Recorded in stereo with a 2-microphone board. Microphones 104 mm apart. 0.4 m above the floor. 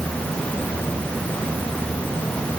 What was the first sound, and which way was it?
Only background noise.